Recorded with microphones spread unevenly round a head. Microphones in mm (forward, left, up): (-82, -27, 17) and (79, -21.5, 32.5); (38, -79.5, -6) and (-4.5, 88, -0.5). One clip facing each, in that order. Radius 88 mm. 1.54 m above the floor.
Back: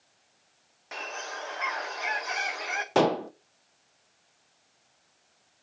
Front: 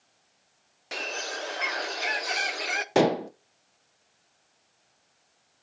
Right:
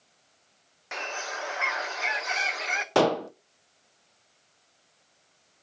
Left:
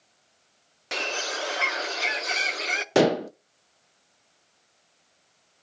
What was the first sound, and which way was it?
A bird, 55° left.